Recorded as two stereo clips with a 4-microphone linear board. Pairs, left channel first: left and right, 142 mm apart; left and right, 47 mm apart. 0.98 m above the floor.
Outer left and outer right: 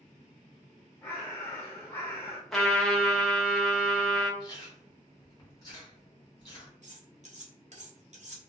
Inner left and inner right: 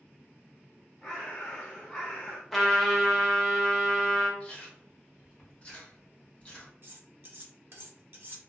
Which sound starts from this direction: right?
Cutlery clinking, at 6.8 s.